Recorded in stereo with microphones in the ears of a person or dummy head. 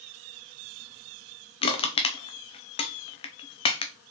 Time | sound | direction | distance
1.6 | crushing | 30° left (ahead or behind) | 0.7 m